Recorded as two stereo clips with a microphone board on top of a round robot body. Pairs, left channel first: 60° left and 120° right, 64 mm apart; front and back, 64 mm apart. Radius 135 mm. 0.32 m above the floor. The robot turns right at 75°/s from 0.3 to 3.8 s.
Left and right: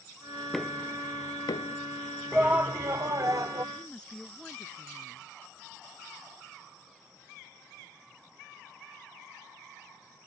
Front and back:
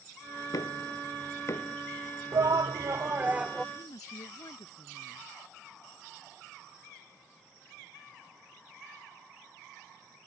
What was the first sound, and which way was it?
Knocking, 30° right.